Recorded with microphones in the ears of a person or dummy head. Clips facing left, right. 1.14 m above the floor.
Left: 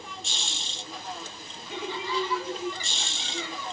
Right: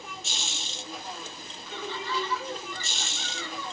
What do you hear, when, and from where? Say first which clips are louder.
0.0 s a machine running: even; 5° right (ahead or behind), 0.8 m
1.7 s laughter: left 2 dB; 15° left (ahead or behind), 0.8 m